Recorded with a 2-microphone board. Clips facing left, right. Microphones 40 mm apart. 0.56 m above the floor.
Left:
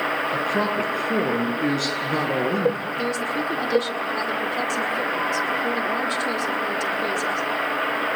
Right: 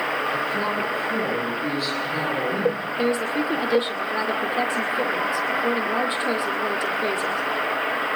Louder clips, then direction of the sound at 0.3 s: Left 1 dB; 65° left (ahead or behind).